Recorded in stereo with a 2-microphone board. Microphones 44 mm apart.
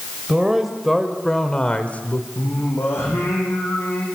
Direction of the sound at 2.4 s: 70° left (ahead or behind).